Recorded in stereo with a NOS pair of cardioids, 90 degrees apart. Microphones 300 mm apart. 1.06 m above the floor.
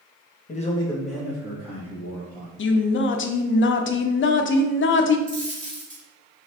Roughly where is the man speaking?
Ahead left.